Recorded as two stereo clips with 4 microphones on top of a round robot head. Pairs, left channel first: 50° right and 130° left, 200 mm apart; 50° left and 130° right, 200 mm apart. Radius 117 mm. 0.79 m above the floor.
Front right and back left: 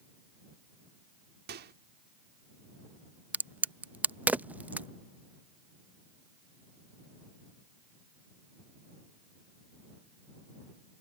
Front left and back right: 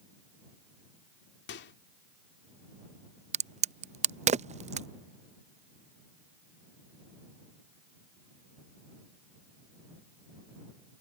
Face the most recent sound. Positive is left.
turn(degrees=-155)